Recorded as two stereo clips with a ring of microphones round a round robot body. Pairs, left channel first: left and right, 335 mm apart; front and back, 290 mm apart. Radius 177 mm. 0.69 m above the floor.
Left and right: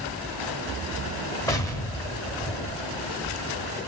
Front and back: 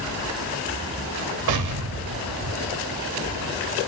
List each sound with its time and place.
1.5 s an explosion: 170° left, 1.0 m